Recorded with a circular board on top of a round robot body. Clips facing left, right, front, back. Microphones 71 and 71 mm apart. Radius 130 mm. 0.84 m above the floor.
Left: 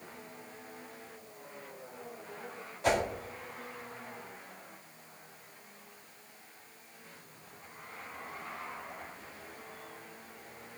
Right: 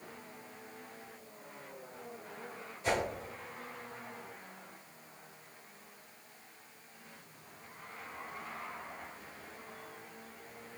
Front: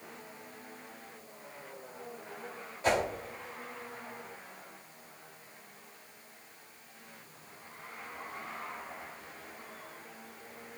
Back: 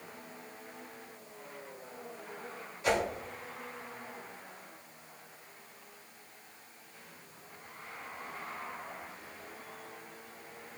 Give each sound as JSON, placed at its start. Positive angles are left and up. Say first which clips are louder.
{"t": 2.8, "sound": "a whoosh", "louder": "left 4 dB, front 1 dB", "azimuth_deg": 55, "distance_m": 1.6}